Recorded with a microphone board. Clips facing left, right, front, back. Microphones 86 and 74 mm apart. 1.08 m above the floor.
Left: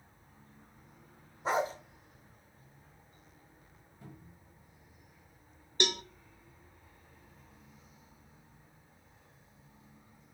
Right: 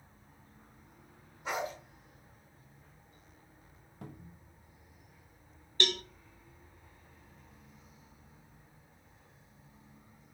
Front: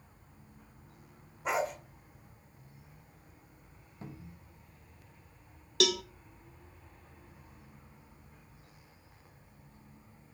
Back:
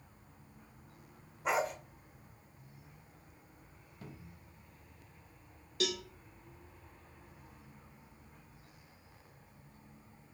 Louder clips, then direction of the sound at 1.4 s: Left 5 dB, front 1 dB; 90° left.